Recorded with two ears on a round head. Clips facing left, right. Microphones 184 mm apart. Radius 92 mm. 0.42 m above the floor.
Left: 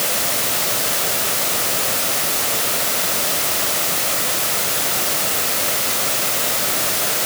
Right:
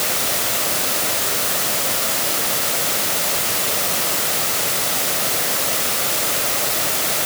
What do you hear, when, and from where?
Only background noise.